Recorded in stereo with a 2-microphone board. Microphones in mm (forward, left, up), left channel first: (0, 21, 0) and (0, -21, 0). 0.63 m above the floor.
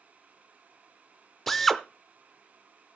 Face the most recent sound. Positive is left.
turn(degrees=5)  # may be behind; listen again after turning